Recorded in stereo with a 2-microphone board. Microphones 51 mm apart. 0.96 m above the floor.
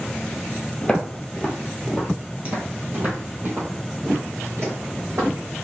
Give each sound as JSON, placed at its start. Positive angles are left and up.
{"t": 0.8, "sound": "footsteps", "side_deg": 15, "distance_m": 1.3}